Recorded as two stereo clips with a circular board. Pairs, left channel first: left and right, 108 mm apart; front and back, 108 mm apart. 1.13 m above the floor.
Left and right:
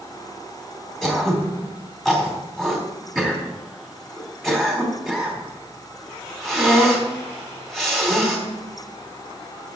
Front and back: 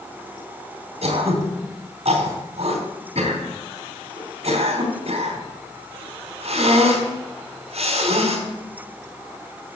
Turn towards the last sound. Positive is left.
turn(degrees=180)